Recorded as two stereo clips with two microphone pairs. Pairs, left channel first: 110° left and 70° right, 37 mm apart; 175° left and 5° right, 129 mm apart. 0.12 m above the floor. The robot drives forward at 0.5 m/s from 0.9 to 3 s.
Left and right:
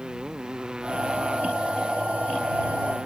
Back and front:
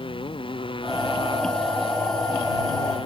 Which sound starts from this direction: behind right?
A motorcycle, at 0.0 s.